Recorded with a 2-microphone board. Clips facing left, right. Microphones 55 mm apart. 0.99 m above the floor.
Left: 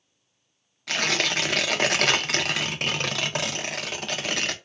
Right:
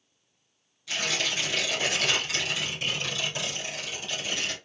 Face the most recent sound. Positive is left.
turn(degrees=65)  # may be behind; listen again after turning